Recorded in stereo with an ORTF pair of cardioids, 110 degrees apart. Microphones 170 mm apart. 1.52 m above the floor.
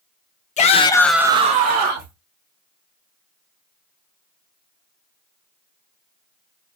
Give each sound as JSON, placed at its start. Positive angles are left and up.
{"t": 0.6, "sound": "a shout", "azimuth_deg": 45, "distance_m": 0.8}